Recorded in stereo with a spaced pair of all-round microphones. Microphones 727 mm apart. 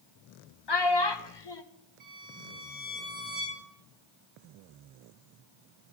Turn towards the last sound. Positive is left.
turn(degrees=-60)  # may be behind; listen again after turning